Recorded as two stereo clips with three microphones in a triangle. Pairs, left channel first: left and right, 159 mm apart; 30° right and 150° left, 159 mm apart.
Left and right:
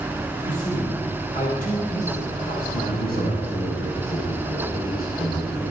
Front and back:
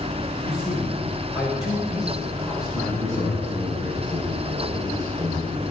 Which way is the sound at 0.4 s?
65° left.